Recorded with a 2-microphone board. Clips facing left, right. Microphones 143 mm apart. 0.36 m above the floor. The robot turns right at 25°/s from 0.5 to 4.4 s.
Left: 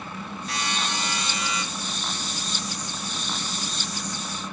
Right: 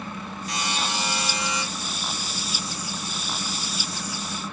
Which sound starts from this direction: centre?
A buzzer, at 0.5 s.